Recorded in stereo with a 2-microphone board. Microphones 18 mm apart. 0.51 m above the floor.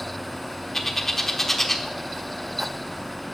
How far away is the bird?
About 1.0 m.